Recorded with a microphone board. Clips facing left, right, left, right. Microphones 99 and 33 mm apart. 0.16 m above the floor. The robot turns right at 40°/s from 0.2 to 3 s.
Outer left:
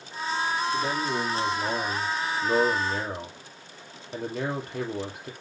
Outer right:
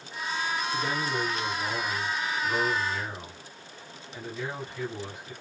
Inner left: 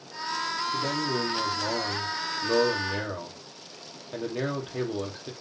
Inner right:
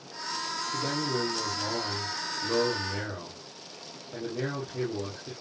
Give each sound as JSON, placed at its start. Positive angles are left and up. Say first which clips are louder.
{"t": 0.7, "sound": "a man speaking", "louder": "outer left 2 dB, inner right 1 dB", "azimuth_deg": 10, "distance_m": 5.5}